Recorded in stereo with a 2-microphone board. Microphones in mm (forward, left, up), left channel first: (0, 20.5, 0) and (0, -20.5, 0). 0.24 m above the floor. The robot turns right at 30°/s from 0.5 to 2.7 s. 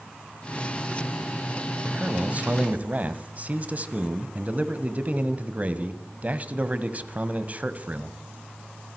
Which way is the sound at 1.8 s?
30° right (ahead or behind).